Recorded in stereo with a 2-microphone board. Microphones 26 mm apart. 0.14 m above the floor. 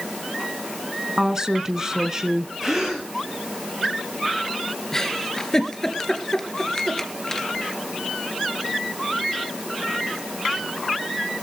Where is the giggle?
20° left (ahead or behind), 2.5 m.